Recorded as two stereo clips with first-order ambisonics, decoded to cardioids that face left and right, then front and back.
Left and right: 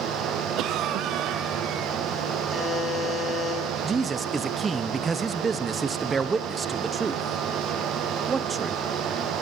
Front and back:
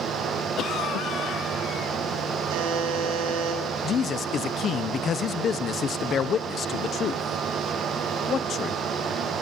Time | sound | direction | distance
0.6 | a cough | 50° right | 0.7 m
2.5 | a buzzer | straight behind | 7.5 m
3.8 | a man speaking | 30° right | 0.7 m